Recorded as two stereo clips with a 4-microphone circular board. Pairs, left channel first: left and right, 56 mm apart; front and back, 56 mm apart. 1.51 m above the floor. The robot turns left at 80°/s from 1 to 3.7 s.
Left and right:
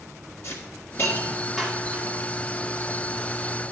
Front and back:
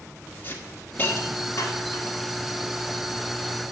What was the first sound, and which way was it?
A hiss, 50° left.